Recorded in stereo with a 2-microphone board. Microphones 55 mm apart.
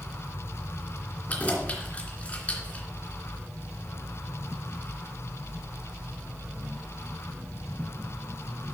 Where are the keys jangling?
30° left (ahead or behind), 2.5 m.